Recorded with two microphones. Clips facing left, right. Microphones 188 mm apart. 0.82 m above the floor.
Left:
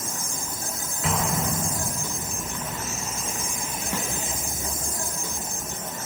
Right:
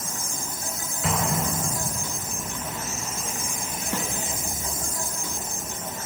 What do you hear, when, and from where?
0.0 s an insect: 50° left (ahead or behind), 2.5 m
1.0 s an explosion: centre (ahead or behind), 3.5 m
3.9 s a snare drum: 15° left (ahead or behind), 1.8 m